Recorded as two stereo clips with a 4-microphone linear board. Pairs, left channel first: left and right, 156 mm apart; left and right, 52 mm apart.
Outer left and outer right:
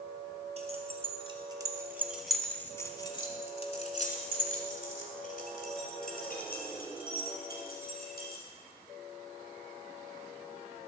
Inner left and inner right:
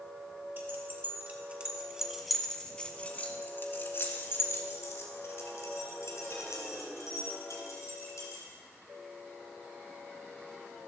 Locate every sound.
0.6 s keys jangling: 45° right (ahead or behind), 1.6 m; by 8.4 s 80° left, 4 m